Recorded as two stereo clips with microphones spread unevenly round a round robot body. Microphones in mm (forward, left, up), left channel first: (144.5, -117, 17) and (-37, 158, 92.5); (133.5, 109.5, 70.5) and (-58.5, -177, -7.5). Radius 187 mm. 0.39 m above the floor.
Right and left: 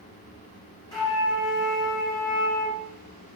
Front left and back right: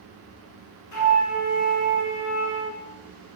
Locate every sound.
0.9 s a flute: 20° left, 6 m